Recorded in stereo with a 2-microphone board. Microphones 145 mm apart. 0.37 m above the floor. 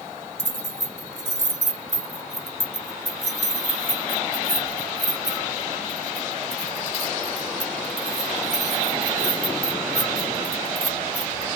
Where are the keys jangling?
50° right (ahead or behind), 1.2 m.